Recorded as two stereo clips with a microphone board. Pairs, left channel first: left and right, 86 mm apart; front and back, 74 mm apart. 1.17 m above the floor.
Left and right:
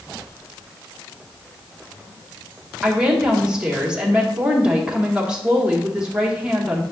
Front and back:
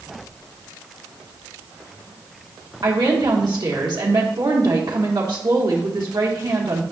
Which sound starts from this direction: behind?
A woman speaking, at 2.8 s.